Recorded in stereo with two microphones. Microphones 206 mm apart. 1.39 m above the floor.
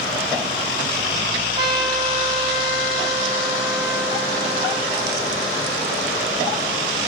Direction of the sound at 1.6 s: 25° right (ahead or behind).